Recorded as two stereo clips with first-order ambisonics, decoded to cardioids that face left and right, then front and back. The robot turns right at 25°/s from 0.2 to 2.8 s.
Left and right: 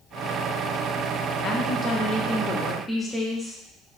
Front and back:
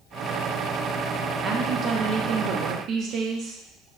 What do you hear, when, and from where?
1.4 s a woman speaking: 130° left, 0.8 m; by 3.6 s 165° left, 0.8 m